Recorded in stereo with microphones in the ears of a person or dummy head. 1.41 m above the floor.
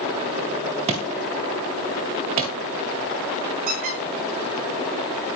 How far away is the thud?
About 1.7 m.